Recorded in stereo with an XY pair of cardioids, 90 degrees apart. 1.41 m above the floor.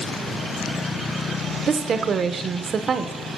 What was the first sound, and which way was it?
A woman speaking, 55° right.